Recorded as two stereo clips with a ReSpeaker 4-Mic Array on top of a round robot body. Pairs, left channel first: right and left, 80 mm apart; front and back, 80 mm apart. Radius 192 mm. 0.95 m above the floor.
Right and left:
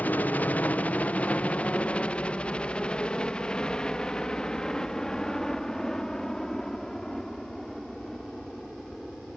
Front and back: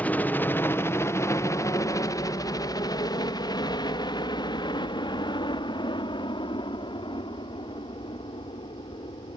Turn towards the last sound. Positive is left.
turn(degrees=-5)